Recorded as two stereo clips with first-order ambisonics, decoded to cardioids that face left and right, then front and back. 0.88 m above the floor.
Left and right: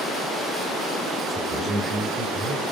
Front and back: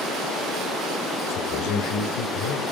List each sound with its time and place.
1.3 s a man speaking: 5° right, 4 m; by 2.6 s 15° right, 5 m